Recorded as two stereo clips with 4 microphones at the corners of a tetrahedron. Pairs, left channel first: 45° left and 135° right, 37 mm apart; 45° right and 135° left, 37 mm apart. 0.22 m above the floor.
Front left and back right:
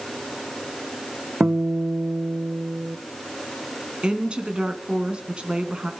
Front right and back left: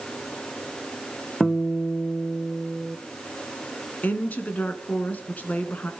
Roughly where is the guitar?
Behind right.